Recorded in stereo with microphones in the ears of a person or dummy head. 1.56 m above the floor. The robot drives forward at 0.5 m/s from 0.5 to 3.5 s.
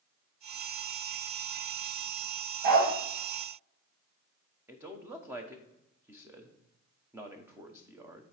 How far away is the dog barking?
About 2.5 m.